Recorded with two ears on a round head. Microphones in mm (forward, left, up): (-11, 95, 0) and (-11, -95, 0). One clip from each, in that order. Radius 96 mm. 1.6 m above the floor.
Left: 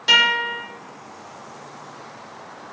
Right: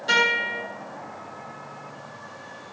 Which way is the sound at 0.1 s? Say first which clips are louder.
Left 5 dB; 65° left (ahead or behind).